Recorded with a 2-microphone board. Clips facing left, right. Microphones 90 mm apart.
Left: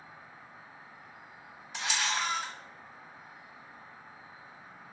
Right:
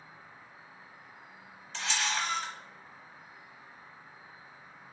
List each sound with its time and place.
0.0 s an insect: 55° left (ahead or behind), 1.0 m
1.7 s a camera shutter: 15° left (ahead or behind), 0.9 m